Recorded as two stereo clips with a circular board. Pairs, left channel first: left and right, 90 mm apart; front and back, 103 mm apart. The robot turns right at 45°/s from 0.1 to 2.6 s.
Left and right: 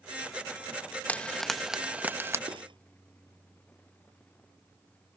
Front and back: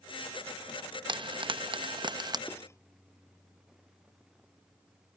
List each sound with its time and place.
1.1 s frying: 160° left; by 2.4 s 145° right
2.5 s cutlery clinking: 70° right; by 2.8 s 65° right